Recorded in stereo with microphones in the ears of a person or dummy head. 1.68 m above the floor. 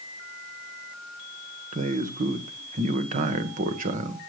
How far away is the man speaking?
About 1.6 m.